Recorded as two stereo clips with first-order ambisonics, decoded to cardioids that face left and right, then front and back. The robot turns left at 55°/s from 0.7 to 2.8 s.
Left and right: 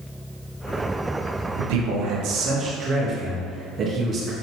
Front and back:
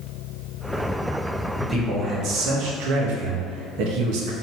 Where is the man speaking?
90° right, 1.6 m; by 4.3 s 155° right, 1.6 m.